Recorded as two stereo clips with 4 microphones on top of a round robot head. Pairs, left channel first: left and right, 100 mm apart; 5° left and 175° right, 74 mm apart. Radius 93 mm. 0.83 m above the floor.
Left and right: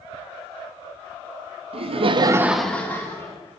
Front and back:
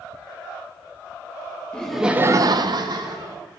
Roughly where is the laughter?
Right.